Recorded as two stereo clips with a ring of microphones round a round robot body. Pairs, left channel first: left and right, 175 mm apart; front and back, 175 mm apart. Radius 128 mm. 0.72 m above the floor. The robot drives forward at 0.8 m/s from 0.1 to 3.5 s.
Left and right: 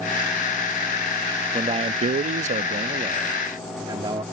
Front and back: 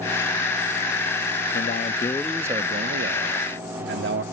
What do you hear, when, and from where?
1.5 s a man speaking: 30° right; by 4.2 s 160° right